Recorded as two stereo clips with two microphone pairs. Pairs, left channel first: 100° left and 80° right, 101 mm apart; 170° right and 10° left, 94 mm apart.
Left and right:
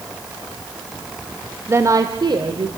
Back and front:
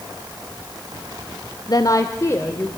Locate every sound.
1.7 s a woman speaking: 140° right, 1.1 m; by 2.7 s 105° right, 1.8 m